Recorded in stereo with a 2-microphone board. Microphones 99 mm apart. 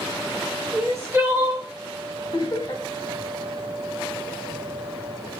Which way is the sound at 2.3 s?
40° left (ahead or behind).